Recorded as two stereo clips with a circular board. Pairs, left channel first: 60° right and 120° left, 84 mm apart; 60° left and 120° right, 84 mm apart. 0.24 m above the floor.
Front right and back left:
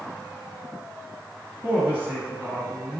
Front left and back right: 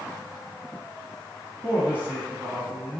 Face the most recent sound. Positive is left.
turn(degrees=180)